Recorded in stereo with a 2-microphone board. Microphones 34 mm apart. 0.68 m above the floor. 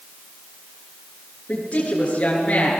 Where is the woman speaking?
40° left (ahead or behind), 9 m.